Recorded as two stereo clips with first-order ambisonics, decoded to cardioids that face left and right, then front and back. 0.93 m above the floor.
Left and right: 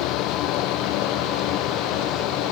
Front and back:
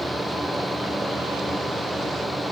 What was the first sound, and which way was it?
Only background noise.